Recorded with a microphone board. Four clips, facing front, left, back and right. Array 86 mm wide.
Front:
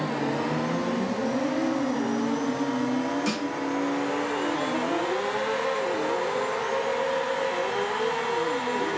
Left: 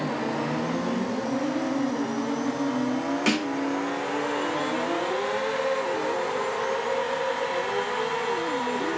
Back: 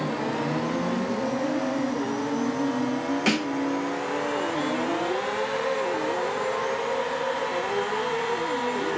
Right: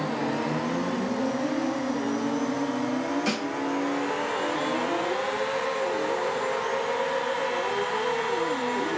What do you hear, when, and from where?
3.3 s a snare drum: 145° left, 1.1 m